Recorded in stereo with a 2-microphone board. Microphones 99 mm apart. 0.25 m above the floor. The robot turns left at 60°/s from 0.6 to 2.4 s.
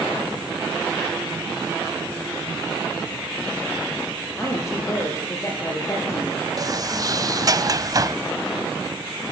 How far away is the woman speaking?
About 6.5 m.